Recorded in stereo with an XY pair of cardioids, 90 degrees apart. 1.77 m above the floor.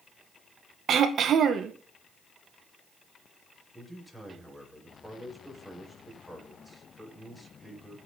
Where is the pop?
No pop in this recording.